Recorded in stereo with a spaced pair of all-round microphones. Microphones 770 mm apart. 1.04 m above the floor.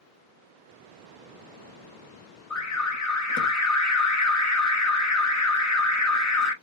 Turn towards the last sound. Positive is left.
turn(degrees=20)  # may be behind; listen again after turning